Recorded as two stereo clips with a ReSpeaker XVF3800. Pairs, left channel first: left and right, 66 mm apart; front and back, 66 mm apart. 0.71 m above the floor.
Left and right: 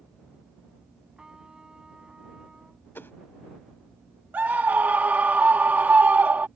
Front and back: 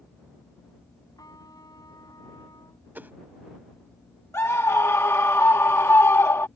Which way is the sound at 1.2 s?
10° right.